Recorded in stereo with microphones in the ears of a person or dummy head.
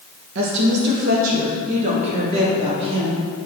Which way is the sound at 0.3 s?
65° right (ahead or behind).